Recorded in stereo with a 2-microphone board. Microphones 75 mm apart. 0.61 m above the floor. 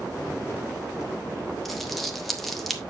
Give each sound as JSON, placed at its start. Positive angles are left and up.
{"t": 1.6, "sound": "crumpling", "side_deg": 0, "distance_m": 1.2}